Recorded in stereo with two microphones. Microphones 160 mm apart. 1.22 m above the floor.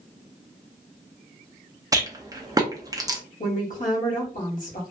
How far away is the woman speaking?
About 1.2 m.